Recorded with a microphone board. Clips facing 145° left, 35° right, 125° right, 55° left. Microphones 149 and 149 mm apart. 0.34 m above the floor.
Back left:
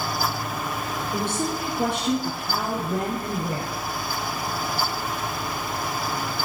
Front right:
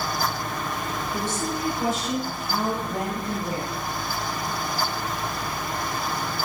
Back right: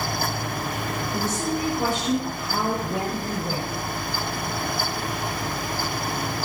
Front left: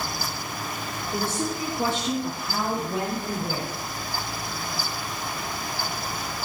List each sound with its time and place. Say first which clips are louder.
1.1 s a woman speaking: back left 3 dB, even; 115° left, 5 m; by 3.7 s 135° left, 4 m